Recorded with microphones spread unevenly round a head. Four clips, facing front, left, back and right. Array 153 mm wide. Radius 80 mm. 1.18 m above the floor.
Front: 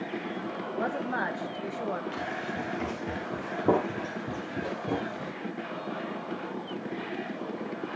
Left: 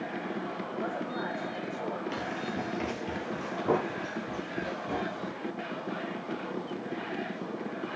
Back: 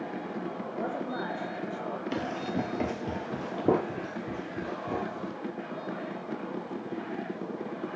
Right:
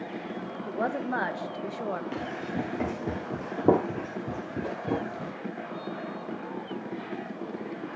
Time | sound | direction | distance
0.7 | a woman speaking | 95° right | 1.4 m
2.1 | running footsteps | 160° right | 1.8 m